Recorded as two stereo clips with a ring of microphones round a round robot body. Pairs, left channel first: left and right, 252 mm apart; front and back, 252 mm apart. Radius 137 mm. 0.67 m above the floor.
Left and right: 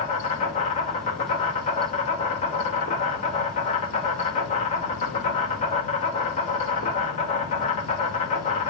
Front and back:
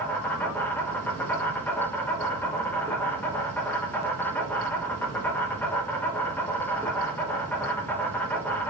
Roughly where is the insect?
Left.